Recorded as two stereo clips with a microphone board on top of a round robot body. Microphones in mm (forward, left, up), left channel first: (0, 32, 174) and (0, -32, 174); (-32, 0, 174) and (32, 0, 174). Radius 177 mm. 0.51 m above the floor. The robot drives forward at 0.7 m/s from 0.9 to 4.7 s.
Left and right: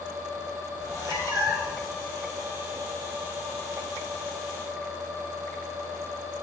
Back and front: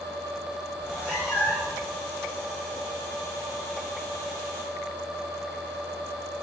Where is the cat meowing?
65° left, 5.5 m; by 1.8 s 70° left, 5 m.